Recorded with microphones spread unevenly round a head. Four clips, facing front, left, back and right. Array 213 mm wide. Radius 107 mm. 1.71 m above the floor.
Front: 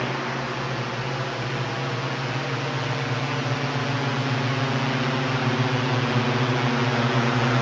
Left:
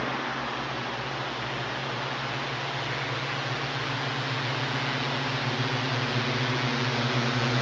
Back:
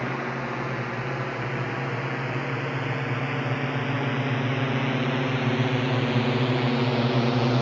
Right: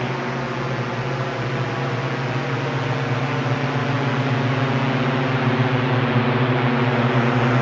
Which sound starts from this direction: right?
A drone, at 0.0 s.